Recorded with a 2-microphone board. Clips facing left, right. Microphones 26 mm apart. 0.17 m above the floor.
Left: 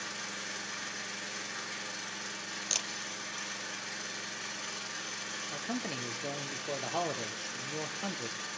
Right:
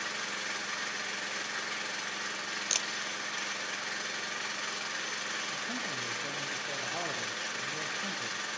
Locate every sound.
0.0 s an engine running: 30° right (ahead or behind), 4 m
2.7 s a camera shutter: 10° right (ahead or behind), 2.5 m
5.5 s a man speaking: 25° left (ahead or behind), 3 m